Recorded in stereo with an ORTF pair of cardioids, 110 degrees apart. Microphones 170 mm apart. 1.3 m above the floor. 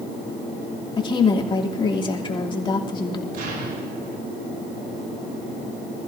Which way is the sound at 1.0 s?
30° left.